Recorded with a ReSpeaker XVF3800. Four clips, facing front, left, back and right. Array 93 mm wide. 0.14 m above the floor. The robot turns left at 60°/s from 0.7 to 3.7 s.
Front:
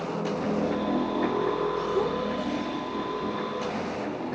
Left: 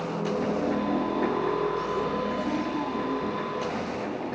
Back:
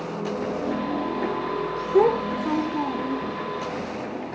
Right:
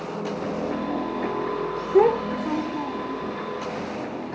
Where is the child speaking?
125° right; by 3.3 s 155° left.